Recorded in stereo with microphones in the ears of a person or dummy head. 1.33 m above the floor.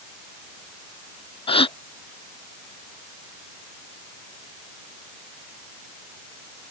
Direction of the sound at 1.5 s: 30° left (ahead or behind).